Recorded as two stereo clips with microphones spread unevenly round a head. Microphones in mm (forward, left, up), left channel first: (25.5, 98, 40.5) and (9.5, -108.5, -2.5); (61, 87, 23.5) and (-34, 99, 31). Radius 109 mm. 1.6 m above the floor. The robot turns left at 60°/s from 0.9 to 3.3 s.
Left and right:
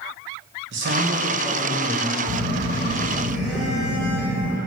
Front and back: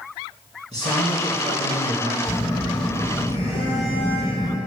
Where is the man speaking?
135° right, 1.3 m; by 2.1 s 150° left, 1.3 m.